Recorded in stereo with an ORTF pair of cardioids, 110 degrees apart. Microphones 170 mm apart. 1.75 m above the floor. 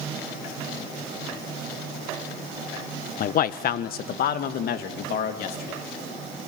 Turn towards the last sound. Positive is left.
turn(degrees=65)